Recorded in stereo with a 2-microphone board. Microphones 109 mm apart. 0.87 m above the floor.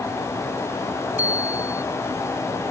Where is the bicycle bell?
15° right (ahead or behind).